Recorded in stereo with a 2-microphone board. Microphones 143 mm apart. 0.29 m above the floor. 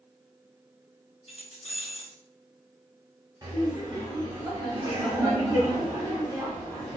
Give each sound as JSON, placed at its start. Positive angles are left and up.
{"t": 1.3, "sound": "keys jangling", "side_deg": 45, "distance_m": 1.3}
{"t": 3.4, "sound": "laughter", "side_deg": -30, "distance_m": 1.2}